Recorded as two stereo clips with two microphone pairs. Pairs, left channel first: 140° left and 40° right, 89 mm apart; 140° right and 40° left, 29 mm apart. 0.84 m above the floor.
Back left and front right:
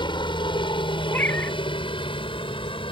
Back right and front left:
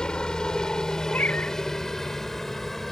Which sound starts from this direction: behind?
A helicopter, at 0.0 s.